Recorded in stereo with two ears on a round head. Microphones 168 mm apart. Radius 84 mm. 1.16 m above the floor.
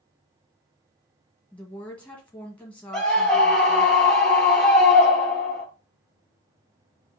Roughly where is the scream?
Centre.